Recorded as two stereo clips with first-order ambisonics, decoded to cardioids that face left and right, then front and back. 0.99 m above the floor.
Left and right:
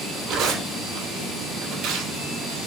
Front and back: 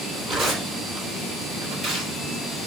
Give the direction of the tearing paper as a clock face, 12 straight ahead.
4 o'clock.